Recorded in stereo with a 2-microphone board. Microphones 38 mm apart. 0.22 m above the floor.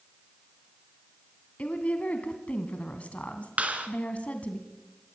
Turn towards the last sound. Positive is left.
turn(degrees=-40)  # may be behind; listen again after turning